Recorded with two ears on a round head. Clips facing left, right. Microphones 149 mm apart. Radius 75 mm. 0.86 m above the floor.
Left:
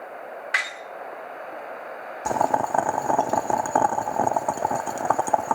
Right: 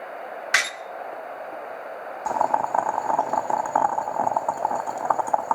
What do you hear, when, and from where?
0.5 s a door slam: 55° right (ahead or behind), 1.3 m
2.2 s boiling: 30° left (ahead or behind), 0.6 m